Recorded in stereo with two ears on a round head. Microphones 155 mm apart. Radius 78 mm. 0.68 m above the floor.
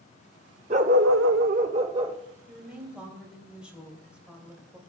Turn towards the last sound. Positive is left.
turn(degrees=-5)  # may be behind; listen again after turning